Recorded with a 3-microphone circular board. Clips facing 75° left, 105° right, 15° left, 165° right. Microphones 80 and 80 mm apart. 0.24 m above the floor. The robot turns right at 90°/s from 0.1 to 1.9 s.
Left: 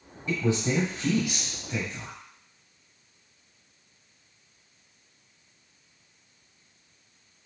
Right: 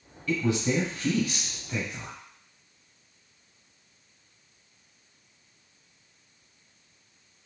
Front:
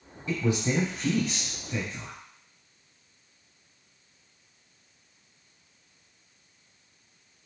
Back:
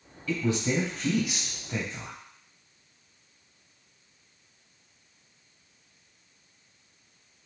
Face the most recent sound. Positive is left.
turn(degrees=-175)